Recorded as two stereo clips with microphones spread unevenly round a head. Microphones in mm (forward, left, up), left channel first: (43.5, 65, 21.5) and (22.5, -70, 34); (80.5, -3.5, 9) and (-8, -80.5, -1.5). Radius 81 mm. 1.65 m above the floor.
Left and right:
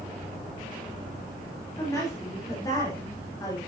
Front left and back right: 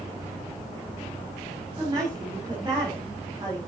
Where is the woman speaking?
155° left, 4.5 m; by 3.6 s 150° left, 3.5 m.